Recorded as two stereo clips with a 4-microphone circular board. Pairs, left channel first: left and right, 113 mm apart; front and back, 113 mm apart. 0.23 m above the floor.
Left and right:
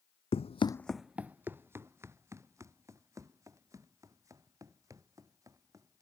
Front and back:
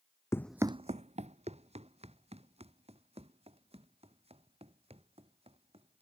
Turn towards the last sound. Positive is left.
turn(degrees=-150)